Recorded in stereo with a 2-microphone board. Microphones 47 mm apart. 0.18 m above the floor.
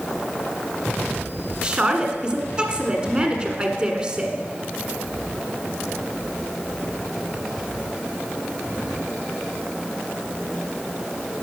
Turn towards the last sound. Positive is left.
turn(degrees=-25)  # may be behind; listen again after turning